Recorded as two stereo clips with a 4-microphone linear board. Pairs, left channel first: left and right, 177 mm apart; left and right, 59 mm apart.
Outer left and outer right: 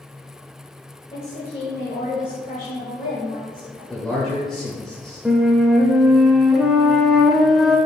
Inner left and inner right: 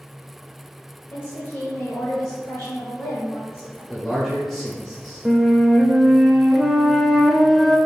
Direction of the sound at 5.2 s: Centre (ahead or behind).